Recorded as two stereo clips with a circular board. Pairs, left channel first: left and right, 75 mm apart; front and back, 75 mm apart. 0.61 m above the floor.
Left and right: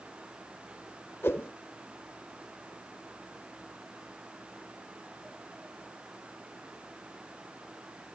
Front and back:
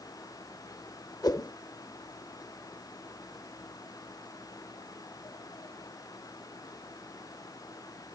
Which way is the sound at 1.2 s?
30° left.